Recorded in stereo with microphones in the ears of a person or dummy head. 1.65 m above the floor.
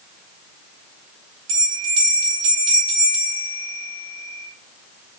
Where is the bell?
80° right, 3 m.